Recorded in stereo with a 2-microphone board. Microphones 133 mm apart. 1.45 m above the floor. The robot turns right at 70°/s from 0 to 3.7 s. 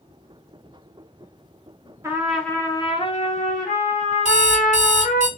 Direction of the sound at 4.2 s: 55° left (ahead or behind).